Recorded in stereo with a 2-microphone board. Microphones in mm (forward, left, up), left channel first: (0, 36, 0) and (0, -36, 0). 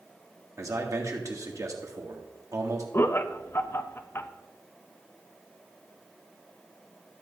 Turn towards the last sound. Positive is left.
turn(degrees=35)  # may be behind; listen again after turning